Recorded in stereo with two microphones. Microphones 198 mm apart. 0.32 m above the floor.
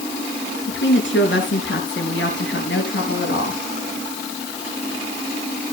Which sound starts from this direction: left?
A woman speaking, at 0.7 s.